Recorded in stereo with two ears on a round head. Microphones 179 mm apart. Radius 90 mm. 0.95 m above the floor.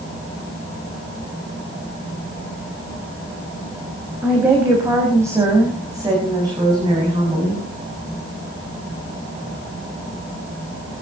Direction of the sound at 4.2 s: 10° right (ahead or behind).